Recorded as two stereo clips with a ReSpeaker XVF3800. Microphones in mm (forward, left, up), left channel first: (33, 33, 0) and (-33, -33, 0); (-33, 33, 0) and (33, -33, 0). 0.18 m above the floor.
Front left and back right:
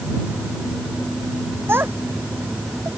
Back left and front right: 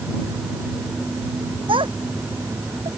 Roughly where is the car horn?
I don't hear a car horn.